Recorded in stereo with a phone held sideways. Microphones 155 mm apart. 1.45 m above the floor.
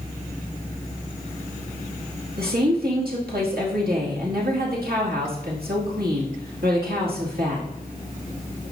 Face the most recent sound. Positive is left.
turn(degrees=-80)